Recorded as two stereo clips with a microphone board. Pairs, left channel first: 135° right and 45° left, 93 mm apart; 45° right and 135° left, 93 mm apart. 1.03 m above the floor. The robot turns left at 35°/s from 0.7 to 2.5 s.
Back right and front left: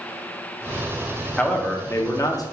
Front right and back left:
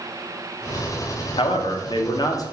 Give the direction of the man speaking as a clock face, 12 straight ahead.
2 o'clock.